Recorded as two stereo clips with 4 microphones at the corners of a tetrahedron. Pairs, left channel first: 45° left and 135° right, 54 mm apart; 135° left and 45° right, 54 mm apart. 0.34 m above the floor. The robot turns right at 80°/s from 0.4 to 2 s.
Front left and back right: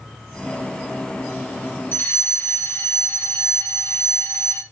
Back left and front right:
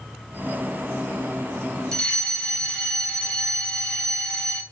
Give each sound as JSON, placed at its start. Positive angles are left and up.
{"t": 1.9, "sound": "a fire alarm", "azimuth_deg": 65, "distance_m": 2.5}